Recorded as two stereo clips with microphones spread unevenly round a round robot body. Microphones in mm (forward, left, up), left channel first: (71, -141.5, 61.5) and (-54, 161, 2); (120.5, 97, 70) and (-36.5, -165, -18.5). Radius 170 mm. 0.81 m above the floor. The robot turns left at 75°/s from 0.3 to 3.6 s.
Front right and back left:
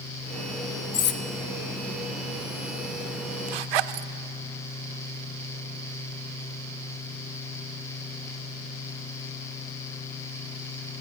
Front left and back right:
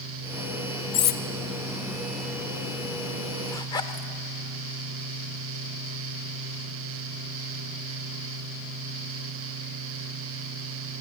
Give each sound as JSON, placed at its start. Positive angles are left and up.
{"t": 0.9, "sound": "cutlery clinking", "azimuth_deg": 5, "distance_m": 1.1}
{"t": 3.5, "sound": "a zipper", "azimuth_deg": 140, "distance_m": 0.7}